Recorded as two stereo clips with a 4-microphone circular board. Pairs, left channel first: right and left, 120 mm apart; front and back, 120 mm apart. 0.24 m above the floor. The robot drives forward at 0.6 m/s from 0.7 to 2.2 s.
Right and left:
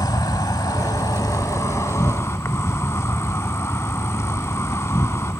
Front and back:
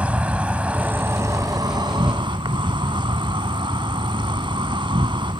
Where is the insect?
110° right; by 5.4 s 150° right.